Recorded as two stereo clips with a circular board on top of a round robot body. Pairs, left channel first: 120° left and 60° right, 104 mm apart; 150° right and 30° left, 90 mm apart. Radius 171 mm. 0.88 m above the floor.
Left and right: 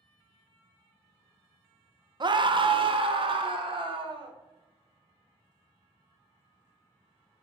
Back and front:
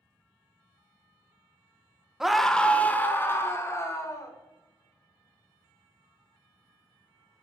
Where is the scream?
55° right, 0.9 m; by 4.3 s 95° right, 2.0 m.